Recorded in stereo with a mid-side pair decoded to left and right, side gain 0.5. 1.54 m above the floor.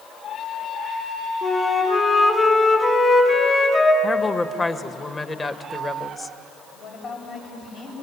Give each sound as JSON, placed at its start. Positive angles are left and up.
{"t": 1.4, "sound": "a flute", "azimuth_deg": 25, "distance_m": 4.5}
{"t": 4.0, "sound": "a woman speaking", "azimuth_deg": 25, "distance_m": 1.5}
{"t": 6.7, "sound": "a woman speaking", "azimuth_deg": 55, "distance_m": 8.5}